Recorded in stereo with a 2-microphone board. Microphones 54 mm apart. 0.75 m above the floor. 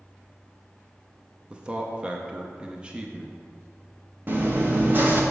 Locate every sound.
1.5 s a man speaking: 20° right (ahead or behind), 0.5 m
4.3 s chewing: 40° right (ahead or behind), 0.9 m